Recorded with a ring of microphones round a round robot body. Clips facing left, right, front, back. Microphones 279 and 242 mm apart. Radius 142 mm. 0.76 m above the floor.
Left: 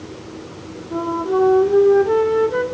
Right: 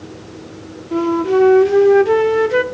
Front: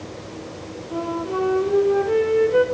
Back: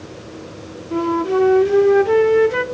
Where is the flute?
140° right, 0.7 m.